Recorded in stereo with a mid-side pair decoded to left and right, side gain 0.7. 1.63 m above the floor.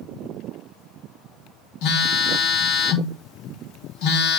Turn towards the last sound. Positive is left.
turn(degrees=65)